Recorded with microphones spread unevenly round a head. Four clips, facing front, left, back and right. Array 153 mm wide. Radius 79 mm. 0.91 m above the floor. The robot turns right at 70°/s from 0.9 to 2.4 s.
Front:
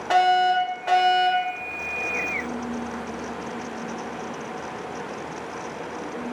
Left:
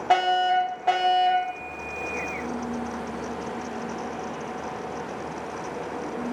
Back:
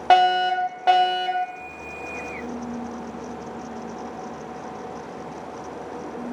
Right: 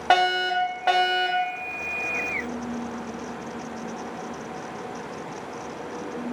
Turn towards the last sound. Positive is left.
turn(degrees=-45)